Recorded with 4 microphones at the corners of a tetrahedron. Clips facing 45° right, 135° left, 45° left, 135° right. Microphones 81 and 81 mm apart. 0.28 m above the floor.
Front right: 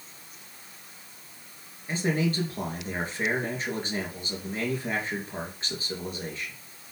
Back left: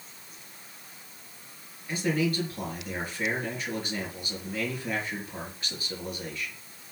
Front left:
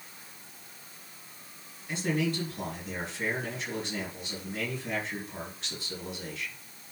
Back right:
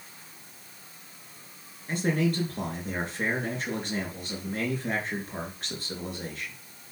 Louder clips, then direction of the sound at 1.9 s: Even, back right 3 dB; 100° right.